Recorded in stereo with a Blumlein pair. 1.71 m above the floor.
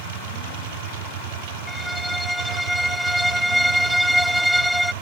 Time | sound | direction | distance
0.0 | a machine running | 55° right | ?
1.7 | a violin | straight ahead | ?